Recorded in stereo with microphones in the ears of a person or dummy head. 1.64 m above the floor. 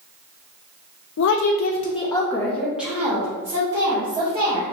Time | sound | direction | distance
1.2 | a woman speaking | 70° left (ahead or behind) | 0.5 m